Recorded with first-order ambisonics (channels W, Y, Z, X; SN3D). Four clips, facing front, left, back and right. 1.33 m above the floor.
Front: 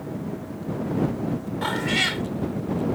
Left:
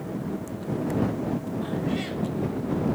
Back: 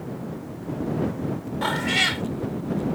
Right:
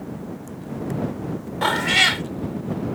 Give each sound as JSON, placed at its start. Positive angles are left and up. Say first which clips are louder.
{"t": 1.6, "sound": "a cat meowing", "louder": "right 11 dB, back 2 dB", "azimuth_deg": -95}